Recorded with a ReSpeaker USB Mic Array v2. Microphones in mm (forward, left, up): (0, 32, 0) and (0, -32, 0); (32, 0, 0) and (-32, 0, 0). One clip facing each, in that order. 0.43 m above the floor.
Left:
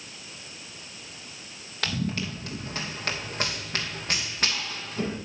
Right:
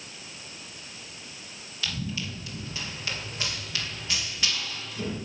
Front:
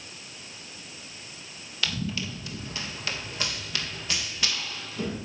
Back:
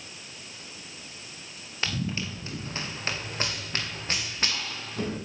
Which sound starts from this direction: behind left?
Running footsteps, at 1.8 s.